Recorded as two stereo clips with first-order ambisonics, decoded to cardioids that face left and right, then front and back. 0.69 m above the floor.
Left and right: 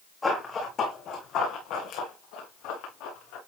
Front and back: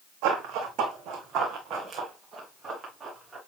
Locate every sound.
0.2 s running footsteps: 165° left, 2 m; by 3.4 s 105° left, 4.5 m